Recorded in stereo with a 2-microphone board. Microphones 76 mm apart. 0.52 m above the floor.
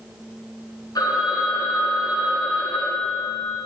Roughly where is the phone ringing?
Left.